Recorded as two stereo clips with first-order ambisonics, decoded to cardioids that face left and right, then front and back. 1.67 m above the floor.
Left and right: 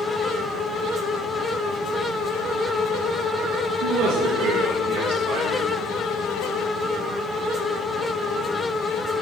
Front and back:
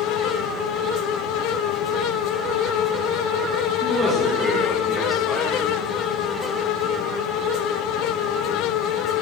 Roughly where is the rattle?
I don't hear a rattle.